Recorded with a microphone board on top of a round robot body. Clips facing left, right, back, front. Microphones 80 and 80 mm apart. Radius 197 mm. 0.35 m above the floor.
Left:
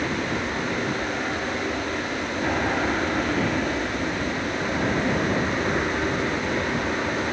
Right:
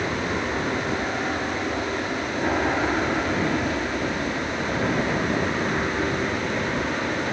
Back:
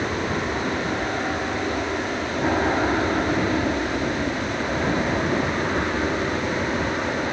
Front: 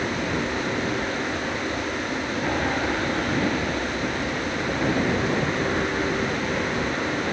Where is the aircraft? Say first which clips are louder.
Even, back 1 dB; 155° right; by 7.3 s 170° left.